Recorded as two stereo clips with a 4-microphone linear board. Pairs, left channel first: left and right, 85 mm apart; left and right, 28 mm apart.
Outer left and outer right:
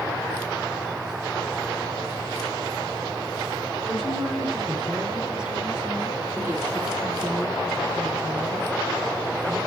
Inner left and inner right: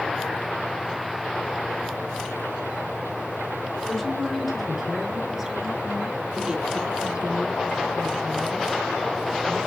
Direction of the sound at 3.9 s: 5° left (ahead or behind).